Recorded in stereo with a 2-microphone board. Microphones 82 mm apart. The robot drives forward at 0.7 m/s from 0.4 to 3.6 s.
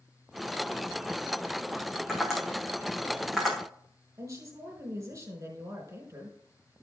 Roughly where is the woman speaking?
Right.